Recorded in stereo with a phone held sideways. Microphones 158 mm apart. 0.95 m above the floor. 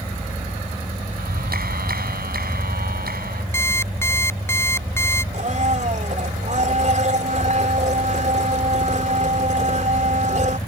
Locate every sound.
1.2 s a clap: 75° right (ahead or behind)
3.5 s an alarm clock: 15° left (ahead or behind)
5.3 s a blender: 50° right (ahead or behind)